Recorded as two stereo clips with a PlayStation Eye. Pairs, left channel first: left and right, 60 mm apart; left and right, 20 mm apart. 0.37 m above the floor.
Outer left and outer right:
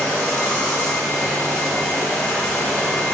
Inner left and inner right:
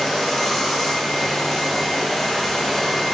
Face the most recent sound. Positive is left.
turn(degrees=10)  # may be behind; listen again after turning